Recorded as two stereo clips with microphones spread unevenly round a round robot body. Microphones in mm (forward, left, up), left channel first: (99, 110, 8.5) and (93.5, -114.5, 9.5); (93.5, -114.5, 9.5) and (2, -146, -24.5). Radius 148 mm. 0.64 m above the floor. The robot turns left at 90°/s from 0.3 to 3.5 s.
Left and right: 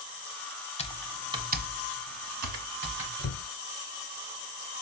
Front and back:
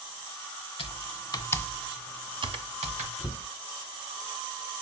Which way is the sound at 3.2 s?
80° left.